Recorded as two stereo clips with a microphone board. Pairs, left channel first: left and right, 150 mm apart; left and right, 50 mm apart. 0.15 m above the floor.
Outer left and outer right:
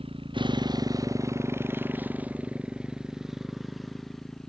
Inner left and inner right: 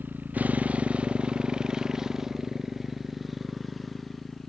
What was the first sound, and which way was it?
A motorcycle, 40° right (ahead or behind).